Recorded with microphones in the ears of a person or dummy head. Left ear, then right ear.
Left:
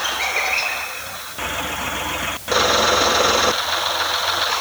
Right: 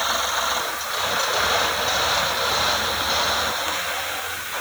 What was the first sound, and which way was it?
Only background noise.